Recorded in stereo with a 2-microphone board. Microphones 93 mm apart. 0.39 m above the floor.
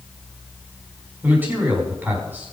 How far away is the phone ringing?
No phone ringing in this recording.